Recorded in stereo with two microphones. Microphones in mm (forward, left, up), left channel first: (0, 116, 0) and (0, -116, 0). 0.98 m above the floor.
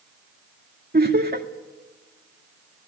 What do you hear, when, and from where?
0.9 s laughter: 45° right (ahead or behind), 1.8 m